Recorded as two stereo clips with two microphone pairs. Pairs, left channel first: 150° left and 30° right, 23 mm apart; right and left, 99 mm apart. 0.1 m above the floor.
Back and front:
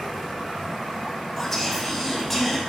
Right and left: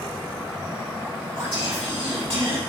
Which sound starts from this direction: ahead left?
Whispering, at 1.4 s.